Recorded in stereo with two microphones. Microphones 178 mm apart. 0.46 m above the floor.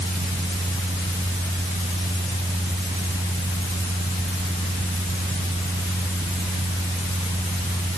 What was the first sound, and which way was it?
Only background noise.